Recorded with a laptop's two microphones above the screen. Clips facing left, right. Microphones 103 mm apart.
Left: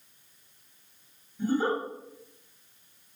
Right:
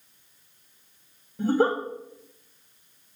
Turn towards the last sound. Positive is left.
turn(degrees=-85)